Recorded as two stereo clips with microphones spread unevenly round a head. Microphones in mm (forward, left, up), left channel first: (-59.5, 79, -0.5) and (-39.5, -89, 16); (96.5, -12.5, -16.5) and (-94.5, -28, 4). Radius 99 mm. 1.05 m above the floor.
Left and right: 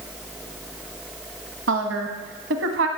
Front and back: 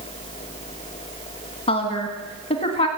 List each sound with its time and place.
1.7 s a woman speaking: 55° right, 1.4 m